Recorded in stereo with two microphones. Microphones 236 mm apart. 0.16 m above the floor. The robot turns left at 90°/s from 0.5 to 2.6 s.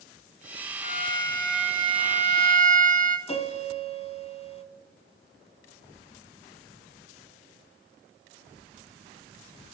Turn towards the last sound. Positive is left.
turn(degrees=25)  # may be behind; listen again after turning